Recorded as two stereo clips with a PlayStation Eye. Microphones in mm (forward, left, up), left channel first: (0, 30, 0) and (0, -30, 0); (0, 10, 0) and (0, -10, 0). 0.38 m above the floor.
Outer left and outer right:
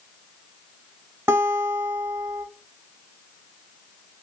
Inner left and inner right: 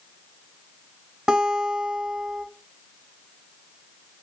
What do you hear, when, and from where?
1.3 s a guitar: 50° right (ahead or behind), 0.7 m